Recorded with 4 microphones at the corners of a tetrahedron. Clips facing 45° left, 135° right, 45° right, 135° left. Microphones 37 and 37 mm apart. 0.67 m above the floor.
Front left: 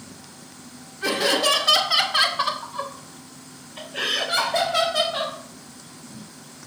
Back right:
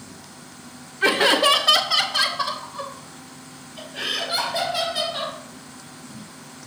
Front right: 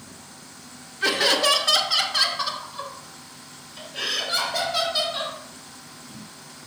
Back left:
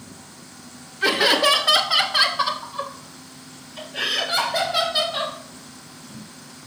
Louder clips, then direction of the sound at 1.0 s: Back right 4 dB, back left 3 dB; 140° right.